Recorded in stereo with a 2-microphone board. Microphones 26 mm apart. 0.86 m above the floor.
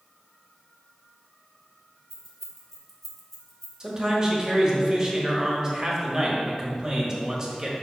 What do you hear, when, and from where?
2.1 s keys jangling: 15° left (ahead or behind), 1.4 m
3.8 s a man speaking: 25° right (ahead or behind), 1.4 m